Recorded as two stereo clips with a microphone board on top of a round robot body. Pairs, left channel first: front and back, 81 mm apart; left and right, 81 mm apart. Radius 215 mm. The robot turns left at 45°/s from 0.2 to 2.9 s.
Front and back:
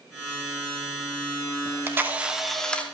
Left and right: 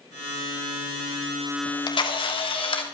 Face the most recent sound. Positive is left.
turn(degrees=70)